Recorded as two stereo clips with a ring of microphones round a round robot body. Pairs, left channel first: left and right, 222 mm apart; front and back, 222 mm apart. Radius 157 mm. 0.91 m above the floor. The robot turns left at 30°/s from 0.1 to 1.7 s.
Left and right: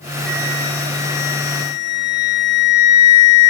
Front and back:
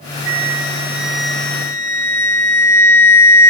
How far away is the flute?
About 3.5 m.